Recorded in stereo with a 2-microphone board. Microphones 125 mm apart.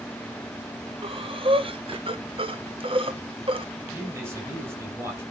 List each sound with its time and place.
1.0 s breathing: 45° right (ahead or behind), 1.0 m
3.9 s a man speaking: 20° right (ahead or behind), 8 m